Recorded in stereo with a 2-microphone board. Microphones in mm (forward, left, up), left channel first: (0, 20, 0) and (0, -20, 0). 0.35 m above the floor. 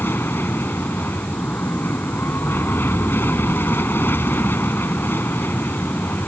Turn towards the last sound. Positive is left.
turn(degrees=65)  # may be behind; listen again after turning